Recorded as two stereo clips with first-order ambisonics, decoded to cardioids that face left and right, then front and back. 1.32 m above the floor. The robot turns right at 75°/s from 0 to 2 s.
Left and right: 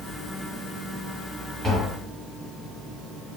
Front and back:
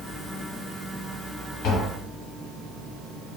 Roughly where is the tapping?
Ahead.